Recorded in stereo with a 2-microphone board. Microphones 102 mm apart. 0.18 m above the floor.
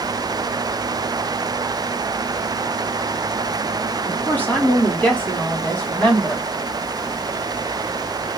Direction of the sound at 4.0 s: 15° left (ahead or behind).